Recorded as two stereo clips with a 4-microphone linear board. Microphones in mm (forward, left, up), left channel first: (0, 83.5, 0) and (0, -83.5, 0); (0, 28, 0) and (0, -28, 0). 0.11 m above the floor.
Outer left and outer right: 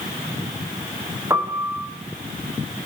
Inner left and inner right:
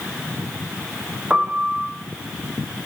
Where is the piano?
15° right (ahead or behind), 8 m.